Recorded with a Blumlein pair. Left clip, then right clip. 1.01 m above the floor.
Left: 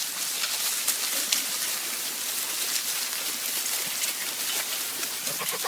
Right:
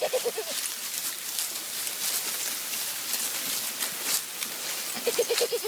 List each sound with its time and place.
Only background noise.